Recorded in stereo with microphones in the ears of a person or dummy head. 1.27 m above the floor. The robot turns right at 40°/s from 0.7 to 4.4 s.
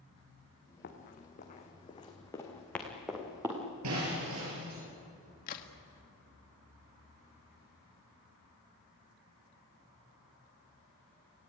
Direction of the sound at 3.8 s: 85° right.